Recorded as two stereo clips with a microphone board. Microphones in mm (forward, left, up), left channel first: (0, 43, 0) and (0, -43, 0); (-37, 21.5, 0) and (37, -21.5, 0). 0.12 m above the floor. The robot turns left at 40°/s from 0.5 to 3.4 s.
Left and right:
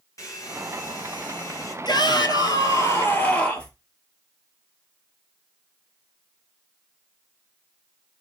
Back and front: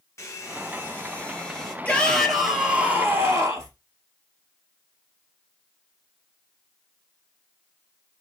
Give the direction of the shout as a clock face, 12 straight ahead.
9 o'clock.